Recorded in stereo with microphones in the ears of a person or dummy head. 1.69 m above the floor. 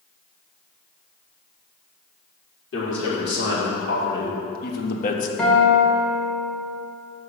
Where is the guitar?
5° left (ahead or behind), 2.5 m.